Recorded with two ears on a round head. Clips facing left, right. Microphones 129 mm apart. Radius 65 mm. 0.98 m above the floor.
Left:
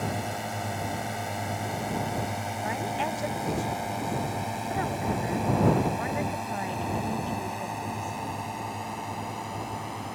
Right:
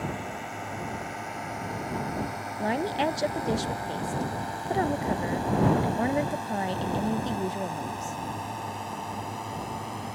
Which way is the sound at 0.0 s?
45° left (ahead or behind).